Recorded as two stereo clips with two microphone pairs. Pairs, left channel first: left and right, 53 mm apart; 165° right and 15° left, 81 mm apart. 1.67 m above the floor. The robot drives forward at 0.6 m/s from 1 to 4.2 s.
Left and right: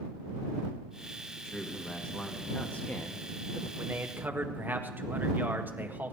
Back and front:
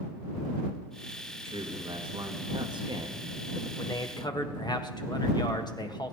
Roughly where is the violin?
No violin in this recording.